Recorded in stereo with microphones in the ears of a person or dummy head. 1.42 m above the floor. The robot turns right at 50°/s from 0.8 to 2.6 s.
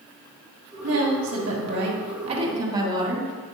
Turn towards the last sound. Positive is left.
turn(degrees=-20)